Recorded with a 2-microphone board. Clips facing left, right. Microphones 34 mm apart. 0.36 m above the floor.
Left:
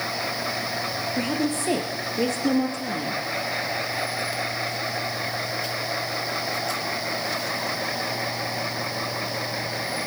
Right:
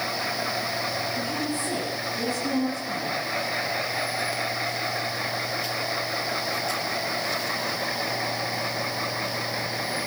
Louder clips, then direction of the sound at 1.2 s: Left 3 dB; 80° left.